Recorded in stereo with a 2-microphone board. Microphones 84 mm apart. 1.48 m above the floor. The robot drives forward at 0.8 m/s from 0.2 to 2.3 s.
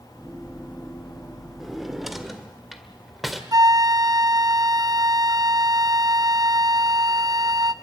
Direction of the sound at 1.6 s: 5° right (ahead or behind).